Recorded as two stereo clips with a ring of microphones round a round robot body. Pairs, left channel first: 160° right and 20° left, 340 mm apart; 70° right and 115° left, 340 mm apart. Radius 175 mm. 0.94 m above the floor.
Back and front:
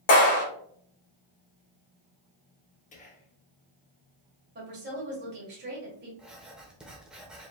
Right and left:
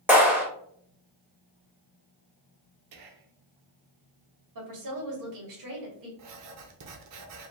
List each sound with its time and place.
0.1 s a clap: 160° right, 2.5 m
2.9 s whispering: 135° left, 1.2 m
4.5 s a woman speaking: 80° left, 2 m
6.2 s writing: 110° left, 0.7 m